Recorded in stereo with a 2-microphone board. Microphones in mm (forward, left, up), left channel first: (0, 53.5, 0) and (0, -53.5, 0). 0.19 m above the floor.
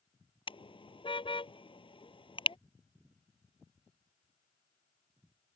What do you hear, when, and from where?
0.5 s a car horn: 55° left (ahead or behind)